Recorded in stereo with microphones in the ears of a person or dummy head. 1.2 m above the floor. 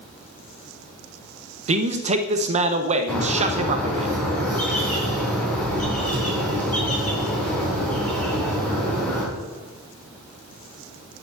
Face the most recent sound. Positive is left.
turn(degrees=10)  # may be behind; listen again after turning